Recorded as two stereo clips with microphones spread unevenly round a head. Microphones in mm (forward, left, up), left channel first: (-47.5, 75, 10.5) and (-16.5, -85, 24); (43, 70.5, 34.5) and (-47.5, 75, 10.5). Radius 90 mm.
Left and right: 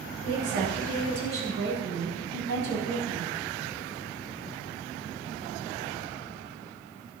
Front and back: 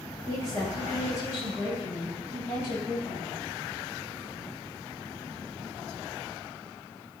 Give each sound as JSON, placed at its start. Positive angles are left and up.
{"t": 0.2, "sound": "a woman speaking", "azimuth_deg": -70, "distance_m": 7.5}